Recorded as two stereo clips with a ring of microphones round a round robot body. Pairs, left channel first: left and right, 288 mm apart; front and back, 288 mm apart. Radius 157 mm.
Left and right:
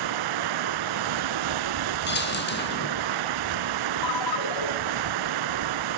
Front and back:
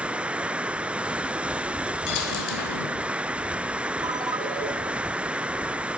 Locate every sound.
0.0 s running water: 95° right, 0.7 m
2.1 s a dropped coin: 35° left, 3 m
4.0 s a ringtone: 100° left, 1.8 m